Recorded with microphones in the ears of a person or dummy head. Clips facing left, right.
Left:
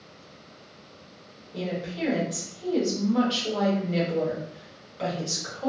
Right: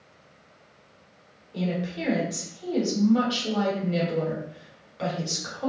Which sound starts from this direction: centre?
A woman speaking, at 1.5 s.